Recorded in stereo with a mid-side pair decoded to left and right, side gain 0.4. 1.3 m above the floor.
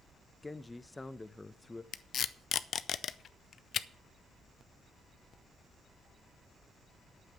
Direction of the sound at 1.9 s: 60° left.